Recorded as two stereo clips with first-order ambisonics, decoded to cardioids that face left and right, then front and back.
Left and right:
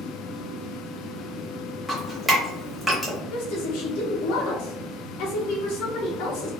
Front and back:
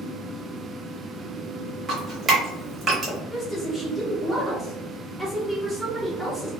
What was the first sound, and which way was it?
Dripping, 160° right.